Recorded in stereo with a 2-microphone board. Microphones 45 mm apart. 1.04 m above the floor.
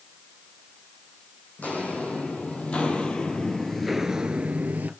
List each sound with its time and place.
1.6 s footsteps: 35° left (ahead or behind), 3 m; by 4.9 s 40° right (ahead or behind), 1.3 m